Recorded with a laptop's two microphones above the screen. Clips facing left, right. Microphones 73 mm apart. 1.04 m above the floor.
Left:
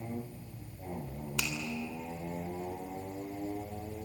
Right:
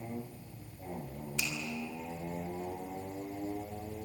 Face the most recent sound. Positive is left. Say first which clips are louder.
# left 2 dB
turn(degrees=85)